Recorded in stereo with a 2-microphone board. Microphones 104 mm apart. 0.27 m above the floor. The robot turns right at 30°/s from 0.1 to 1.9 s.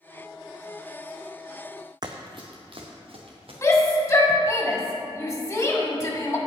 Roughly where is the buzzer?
I don't hear a buzzer.